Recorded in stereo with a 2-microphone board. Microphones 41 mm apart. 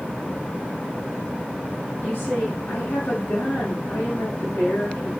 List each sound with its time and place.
2.0 s a woman speaking: 65° left (ahead or behind), 10 m